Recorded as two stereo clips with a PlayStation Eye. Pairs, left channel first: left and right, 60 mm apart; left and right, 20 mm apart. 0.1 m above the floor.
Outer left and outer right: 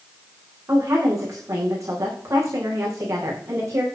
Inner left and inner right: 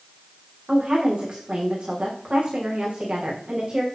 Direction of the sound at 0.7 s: 55° right (ahead or behind).